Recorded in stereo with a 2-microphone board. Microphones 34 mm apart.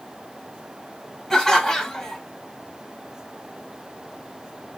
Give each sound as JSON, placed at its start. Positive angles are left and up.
{"t": 1.3, "sound": "laughter", "side_deg": 20, "distance_m": 2.0}